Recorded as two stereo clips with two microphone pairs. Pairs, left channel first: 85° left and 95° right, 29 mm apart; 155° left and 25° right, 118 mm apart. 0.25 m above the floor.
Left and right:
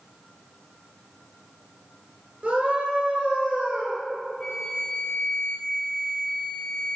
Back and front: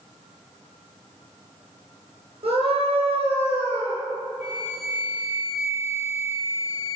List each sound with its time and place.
2.4 s a scream: 60° right, 4.5 m; by 4.0 s 65° right, 5.5 m
4.4 s a flute: 150° left, 1.8 m